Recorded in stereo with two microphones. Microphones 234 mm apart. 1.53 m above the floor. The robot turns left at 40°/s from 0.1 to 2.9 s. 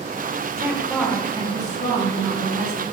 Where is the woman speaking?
170° right, 1.0 m; by 2.8 s 100° left, 1.0 m.